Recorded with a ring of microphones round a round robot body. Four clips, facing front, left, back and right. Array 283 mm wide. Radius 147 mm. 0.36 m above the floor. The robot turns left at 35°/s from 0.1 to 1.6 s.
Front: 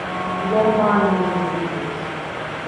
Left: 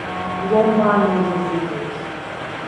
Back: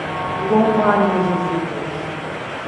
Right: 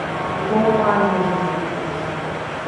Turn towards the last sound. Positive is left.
turn(degrees=170)